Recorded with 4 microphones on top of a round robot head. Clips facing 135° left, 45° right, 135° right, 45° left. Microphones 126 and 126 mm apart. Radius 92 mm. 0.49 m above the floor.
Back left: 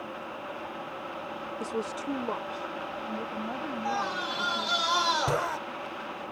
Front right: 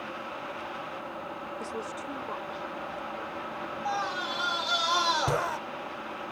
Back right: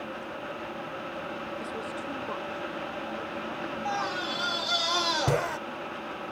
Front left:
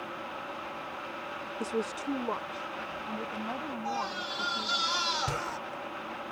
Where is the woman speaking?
70° left; by 4.8 s 115° left.